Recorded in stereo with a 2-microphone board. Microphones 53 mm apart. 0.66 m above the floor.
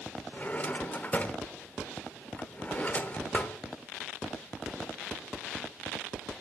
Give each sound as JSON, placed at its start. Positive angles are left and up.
{"t": 0.3, "sound": "a drawer", "side_deg": 30, "distance_m": 0.9}